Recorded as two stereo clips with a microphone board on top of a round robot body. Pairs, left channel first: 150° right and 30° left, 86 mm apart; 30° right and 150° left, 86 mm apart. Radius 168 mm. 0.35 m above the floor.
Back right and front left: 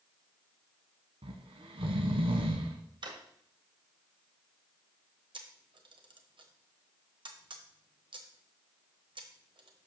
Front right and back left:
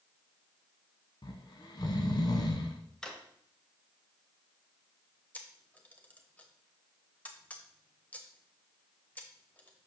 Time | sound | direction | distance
1.2 | snoring | 10° left | 0.8 m
3.0 | a drawer | 50° left | 1.4 m
5.3 | a camera shutter | 40° left | 1.2 m